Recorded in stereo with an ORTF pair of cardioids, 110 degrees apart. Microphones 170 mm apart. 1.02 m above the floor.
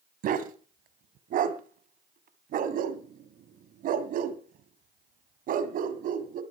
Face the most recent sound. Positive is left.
turn(degrees=-60)